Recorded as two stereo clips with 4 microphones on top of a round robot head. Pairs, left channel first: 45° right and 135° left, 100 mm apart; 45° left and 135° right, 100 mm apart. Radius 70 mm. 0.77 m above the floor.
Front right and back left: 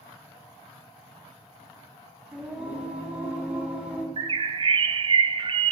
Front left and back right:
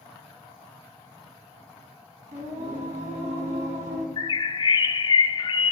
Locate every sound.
2.3 s singing: 145° right, 4 m
4.2 s a bird: 95° left, 0.8 m